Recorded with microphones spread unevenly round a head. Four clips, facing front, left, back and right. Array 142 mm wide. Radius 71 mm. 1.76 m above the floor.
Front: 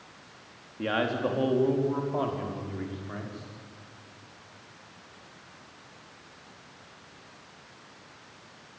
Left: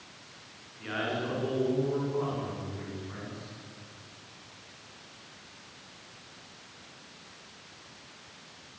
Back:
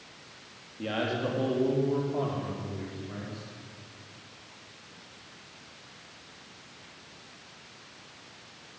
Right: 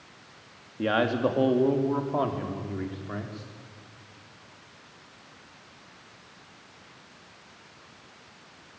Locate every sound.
0.8 s a man speaking: 75° right, 4 m